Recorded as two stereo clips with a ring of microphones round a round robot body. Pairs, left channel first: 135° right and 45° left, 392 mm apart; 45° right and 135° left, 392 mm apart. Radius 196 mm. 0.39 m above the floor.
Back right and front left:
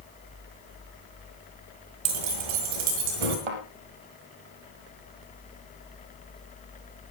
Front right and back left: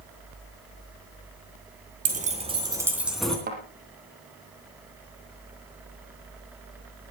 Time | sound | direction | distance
2.0 | keys jangling | 65° left | 2.5 m
3.5 | a thud | 65° left | 3 m